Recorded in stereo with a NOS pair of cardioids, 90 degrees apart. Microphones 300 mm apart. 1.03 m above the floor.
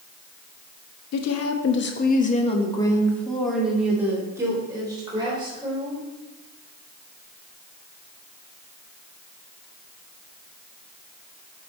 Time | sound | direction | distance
1.1 | a woman speaking | 70° left | 1.3 m